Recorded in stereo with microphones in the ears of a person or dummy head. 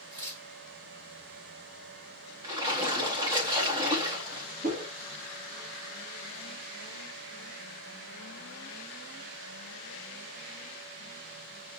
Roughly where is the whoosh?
Right.